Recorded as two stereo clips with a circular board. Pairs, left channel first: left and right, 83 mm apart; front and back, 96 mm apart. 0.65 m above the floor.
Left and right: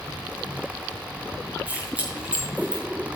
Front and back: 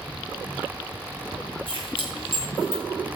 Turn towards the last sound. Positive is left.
turn(degrees=-20)